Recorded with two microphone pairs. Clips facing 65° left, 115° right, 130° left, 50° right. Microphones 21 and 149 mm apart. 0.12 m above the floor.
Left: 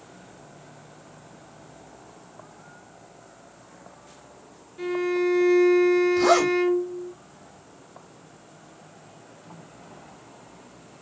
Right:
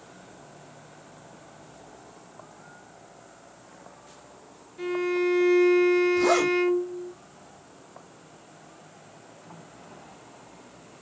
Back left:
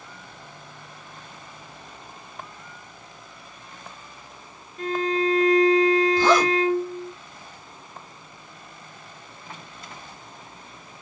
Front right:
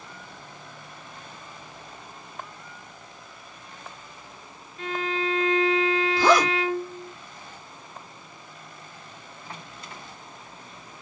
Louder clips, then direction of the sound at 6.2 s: Left 3 dB, back left 1 dB; 30° left.